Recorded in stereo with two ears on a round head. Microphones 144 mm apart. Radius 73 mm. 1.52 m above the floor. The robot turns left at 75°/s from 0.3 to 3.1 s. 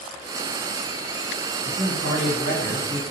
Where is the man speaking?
30° right, 1.4 m; by 3.0 s 130° right, 1.4 m.